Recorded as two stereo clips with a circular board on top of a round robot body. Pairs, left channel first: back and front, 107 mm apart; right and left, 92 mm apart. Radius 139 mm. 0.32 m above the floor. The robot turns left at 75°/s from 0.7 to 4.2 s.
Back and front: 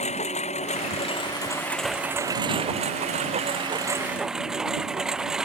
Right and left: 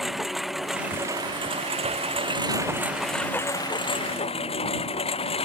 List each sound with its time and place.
0.0 s a lawn mower: straight behind; by 5.5 s 85° right